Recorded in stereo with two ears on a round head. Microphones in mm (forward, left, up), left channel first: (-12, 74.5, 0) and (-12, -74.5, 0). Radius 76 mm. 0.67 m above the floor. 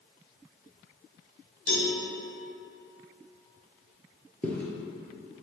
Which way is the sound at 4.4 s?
10° left (ahead or behind).